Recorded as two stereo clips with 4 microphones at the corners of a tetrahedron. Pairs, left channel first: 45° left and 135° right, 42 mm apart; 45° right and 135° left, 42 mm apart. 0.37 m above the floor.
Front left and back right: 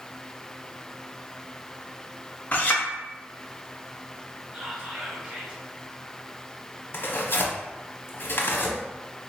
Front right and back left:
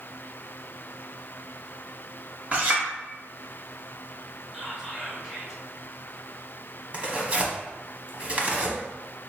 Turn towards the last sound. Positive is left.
turn(degrees=80)